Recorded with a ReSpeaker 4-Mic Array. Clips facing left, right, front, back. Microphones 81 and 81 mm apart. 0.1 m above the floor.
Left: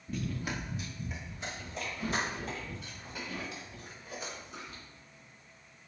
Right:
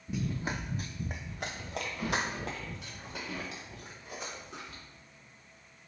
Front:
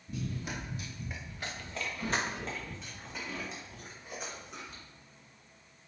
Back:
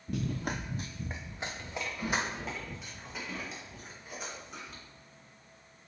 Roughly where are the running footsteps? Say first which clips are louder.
Right 2 dB, back 4 dB; behind.